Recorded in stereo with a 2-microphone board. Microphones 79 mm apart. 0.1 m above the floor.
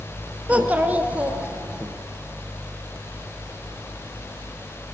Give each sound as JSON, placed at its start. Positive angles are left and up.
{"t": 0.5, "sound": "a child speaking", "side_deg": -20, "distance_m": 0.8}